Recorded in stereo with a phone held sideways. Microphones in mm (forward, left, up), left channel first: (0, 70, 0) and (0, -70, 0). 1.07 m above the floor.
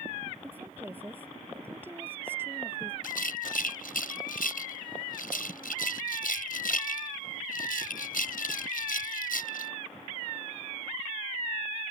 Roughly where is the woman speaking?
Centre.